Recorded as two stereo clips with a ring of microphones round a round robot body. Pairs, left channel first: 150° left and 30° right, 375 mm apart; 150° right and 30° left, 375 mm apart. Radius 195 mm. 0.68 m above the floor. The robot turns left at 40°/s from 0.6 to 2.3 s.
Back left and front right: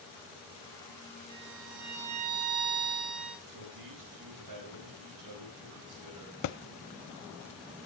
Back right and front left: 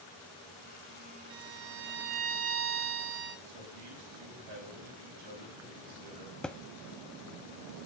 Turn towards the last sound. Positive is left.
turn(degrees=125)